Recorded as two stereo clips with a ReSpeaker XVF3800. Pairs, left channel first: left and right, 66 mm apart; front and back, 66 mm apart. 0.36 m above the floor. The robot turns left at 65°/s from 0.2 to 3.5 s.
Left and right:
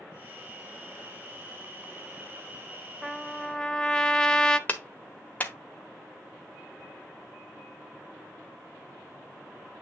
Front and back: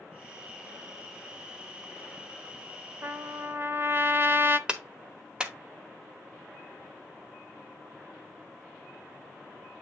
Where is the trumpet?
170° right, 0.7 m; by 4.6 s 160° left, 0.7 m.